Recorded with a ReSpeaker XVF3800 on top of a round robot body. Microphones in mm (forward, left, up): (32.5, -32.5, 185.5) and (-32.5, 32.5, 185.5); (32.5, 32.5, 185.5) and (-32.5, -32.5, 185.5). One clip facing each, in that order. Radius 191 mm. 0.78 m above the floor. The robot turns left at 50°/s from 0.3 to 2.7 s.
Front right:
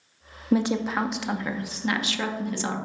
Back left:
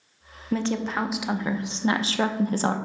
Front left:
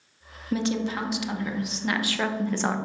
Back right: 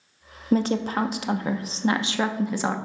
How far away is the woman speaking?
About 0.7 m.